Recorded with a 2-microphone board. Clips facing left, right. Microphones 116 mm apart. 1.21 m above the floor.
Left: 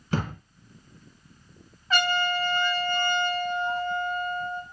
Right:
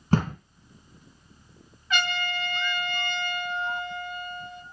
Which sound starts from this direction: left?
A trumpet, at 1.9 s.